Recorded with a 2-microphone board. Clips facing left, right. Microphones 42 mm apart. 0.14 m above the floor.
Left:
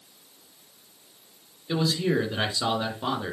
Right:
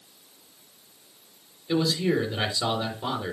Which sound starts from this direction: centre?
A man speaking, at 1.7 s.